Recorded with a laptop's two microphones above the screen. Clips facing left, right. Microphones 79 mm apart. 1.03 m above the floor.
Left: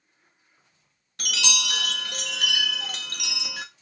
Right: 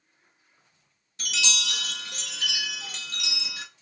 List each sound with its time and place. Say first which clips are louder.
1.2 s a chime: left 2 dB; 60° left (ahead or behind), 0.5 m